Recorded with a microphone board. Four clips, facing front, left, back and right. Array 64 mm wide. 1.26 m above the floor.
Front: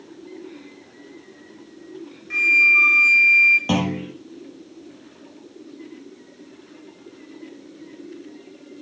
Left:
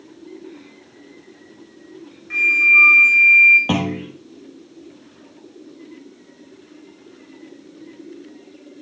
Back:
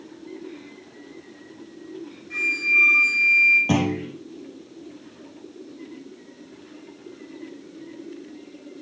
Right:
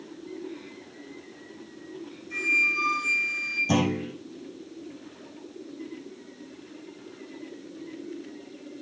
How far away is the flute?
About 3.5 m.